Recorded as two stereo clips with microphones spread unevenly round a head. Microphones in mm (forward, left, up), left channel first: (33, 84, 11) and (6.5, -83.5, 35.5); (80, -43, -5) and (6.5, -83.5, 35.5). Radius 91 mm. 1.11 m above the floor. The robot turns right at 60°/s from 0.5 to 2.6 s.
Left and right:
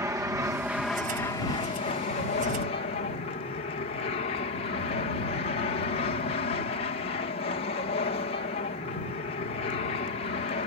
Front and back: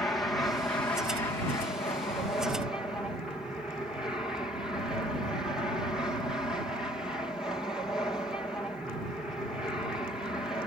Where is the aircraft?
25° right; by 10.7 s 100° left.